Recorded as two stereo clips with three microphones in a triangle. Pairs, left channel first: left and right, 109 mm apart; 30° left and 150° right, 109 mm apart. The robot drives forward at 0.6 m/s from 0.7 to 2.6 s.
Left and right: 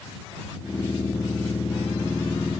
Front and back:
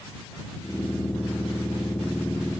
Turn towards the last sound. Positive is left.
No sound to turn to.